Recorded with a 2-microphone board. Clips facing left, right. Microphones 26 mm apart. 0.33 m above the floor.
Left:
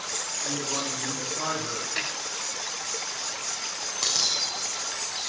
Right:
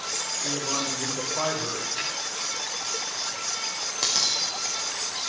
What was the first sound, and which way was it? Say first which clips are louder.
A man speaking: right 2 dB; 30° right (ahead or behind).